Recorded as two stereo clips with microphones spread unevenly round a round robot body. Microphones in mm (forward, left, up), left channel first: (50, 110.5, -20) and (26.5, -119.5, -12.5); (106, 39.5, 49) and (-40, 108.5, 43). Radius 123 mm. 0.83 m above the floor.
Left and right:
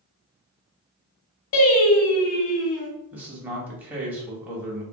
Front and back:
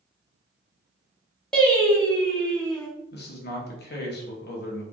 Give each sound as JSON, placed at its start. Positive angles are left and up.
{"t": 1.5, "sound": "singing", "azimuth_deg": 60, "distance_m": 1.0}
{"t": 3.1, "sound": "a man speaking", "azimuth_deg": -10, "distance_m": 0.8}